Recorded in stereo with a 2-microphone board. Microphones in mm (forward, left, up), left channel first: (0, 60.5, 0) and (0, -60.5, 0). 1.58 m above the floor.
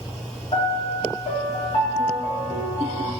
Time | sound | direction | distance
0.5 | a piano | 50° left (ahead or behind) | 2 m